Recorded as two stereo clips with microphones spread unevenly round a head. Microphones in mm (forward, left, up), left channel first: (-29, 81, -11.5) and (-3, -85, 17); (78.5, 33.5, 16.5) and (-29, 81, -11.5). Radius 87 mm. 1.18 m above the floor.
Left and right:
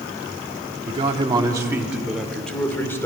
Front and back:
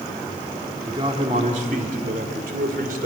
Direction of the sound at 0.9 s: 135° right.